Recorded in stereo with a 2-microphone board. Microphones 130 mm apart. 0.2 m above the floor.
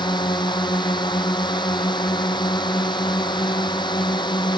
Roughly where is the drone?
Left.